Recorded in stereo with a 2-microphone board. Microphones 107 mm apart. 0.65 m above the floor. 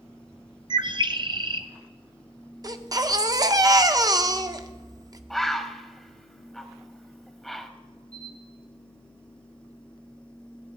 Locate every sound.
0.7 s a bird: 45° right (ahead or behind), 0.7 m
2.6 s a baby crying: 35° right (ahead or behind), 0.7 m
5.3 s a bird: centre (ahead or behind), 1.0 m
8.1 s a camera shutter: 10° left (ahead or behind), 6 m